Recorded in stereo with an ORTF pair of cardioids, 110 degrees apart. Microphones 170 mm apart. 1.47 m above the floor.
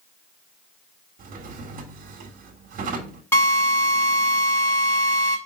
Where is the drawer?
60° right, 1.7 m.